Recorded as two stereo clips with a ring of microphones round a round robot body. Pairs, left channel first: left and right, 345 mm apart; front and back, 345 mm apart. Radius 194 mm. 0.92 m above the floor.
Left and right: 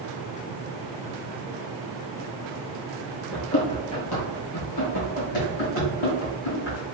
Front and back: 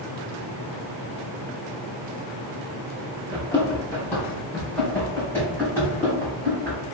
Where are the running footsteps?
75° left, 0.9 m; by 6.8 s 85° left, 5 m.